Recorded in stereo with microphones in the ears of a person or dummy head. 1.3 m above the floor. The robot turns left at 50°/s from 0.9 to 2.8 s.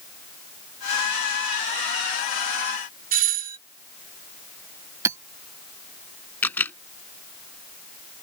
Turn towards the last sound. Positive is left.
turn(degrees=10)  # may be behind; listen again after turning